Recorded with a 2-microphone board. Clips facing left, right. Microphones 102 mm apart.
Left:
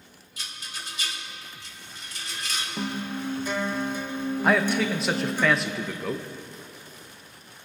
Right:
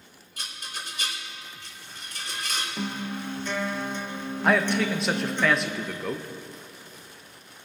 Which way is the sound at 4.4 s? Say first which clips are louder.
Even; centre (ahead or behind).